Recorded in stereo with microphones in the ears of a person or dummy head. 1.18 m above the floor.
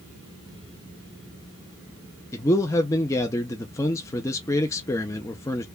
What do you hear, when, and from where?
2.3 s a man speaking: 15° left (ahead or behind), 0.5 m